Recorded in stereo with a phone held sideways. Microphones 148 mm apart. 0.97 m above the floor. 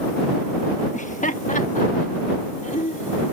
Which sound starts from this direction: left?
Laughter, at 0.9 s.